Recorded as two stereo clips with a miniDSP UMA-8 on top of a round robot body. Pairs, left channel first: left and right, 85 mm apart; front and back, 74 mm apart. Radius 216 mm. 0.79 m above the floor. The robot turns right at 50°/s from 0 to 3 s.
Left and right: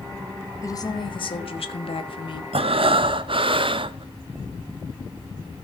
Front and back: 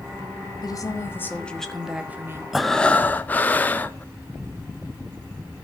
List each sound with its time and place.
0.6 s a woman speaking: 35° left, 1.6 m; by 2.4 s 125° left, 1.6 m
2.5 s breathing: 95° right, 0.9 m; by 4.0 s 70° right, 0.9 m